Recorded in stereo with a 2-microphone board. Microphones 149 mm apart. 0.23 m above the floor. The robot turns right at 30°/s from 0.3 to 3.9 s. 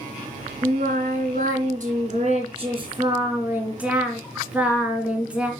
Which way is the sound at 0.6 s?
105° right.